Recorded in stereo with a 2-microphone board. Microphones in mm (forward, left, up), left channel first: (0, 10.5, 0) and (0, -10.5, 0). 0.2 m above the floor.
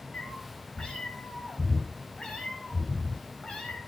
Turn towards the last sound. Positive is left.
turn(degrees=50)  # may be behind; listen again after turning